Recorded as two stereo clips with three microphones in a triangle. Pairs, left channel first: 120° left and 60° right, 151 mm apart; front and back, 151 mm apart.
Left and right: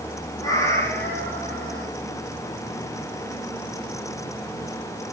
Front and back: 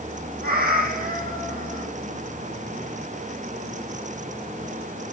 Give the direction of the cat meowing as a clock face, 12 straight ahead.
6 o'clock.